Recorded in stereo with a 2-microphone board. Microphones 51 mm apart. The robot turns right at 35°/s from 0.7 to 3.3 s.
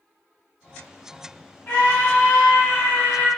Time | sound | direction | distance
1.7 | a scream | 95° left | 1.8 m